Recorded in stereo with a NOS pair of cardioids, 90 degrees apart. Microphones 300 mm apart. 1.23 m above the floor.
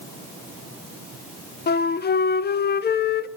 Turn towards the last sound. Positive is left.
turn(degrees=35)